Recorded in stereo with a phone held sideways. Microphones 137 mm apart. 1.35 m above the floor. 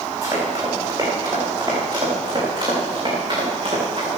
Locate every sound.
0.2 s running footsteps: 25° right (ahead or behind), 6 m; by 4.1 s 45° right (ahead or behind), 6.5 m